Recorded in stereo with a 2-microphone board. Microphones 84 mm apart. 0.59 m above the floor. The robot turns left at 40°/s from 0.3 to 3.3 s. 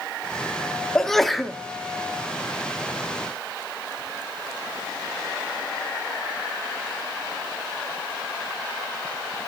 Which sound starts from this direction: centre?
A sneeze, at 0.9 s.